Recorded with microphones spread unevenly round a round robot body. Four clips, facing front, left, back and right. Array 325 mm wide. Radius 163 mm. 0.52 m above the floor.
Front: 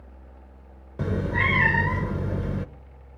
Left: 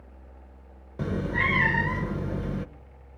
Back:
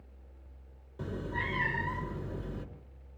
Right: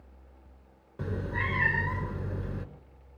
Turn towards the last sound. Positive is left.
turn(degrees=25)